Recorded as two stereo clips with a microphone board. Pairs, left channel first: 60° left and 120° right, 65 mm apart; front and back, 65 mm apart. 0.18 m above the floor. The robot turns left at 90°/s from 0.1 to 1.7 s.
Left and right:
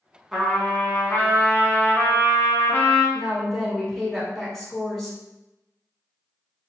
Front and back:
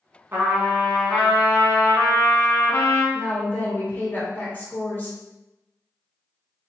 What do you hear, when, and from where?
0.3 s a trumpet: 155° left, 1.0 m; by 3.0 s 30° left, 1.0 m
3.1 s a woman speaking: 25° right, 1.3 m